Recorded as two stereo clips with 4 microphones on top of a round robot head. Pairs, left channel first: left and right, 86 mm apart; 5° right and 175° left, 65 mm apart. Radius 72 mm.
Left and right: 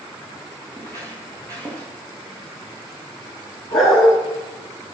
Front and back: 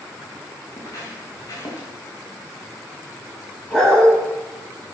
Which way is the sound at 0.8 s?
20° left.